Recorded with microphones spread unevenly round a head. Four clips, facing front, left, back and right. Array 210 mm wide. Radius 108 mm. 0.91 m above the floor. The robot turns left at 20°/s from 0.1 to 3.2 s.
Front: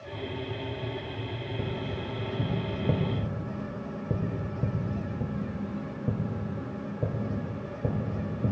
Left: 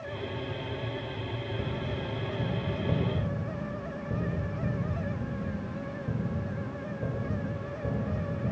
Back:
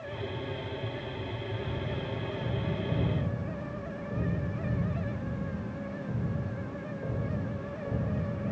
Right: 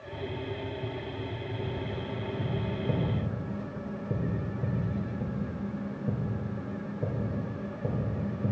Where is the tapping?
20° left, 2.0 m; by 8.5 s 15° right, 2.0 m.